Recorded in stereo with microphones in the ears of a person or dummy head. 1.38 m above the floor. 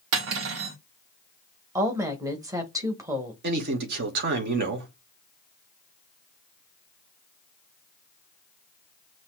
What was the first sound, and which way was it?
Cutlery clinking, 65° right (ahead or behind).